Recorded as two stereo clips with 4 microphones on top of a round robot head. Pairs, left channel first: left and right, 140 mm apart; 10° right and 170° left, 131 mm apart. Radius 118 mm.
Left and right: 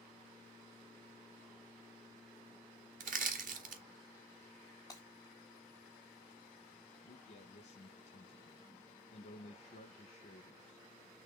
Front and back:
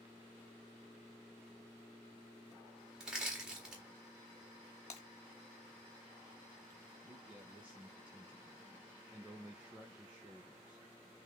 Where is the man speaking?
95° left, 1.2 m.